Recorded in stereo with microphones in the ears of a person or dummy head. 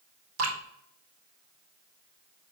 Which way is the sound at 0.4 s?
80° right.